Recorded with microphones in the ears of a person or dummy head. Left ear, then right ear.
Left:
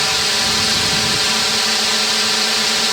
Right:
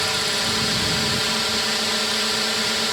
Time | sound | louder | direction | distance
0.0 | a drone | left 5 dB | 20° left (ahead or behind) | ?